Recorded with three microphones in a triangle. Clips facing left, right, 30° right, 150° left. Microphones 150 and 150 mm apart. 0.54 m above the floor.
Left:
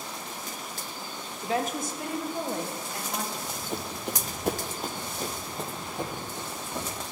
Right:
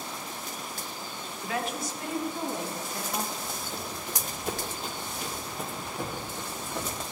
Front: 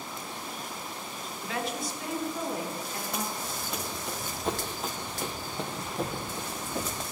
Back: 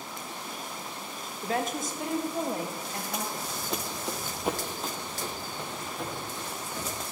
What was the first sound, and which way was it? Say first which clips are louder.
A woman speaking: left 4 dB, back 4 dB; 140° left.